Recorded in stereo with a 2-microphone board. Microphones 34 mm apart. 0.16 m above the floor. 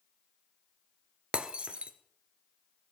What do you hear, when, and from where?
1.3 s breaking glass: 30° right (ahead or behind), 1.0 m